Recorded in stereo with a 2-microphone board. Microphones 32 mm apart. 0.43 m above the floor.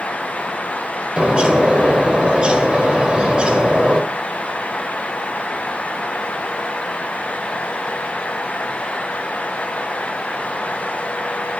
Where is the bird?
35° right (ahead or behind), 1.8 m.